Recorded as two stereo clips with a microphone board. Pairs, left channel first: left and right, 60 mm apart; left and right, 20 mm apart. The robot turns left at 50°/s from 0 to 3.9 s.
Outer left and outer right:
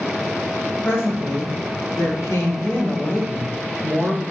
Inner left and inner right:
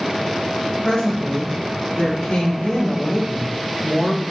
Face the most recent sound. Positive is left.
turn(degrees=-15)